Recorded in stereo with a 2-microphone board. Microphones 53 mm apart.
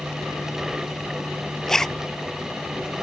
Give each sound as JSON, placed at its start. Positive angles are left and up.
{"t": 1.7, "sound": "a zipper", "side_deg": 5}